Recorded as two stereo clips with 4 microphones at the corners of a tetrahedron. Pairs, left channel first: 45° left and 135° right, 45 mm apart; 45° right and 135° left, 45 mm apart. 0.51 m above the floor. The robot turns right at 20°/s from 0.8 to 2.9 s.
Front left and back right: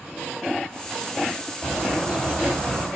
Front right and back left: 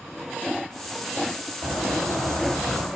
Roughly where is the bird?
Behind left.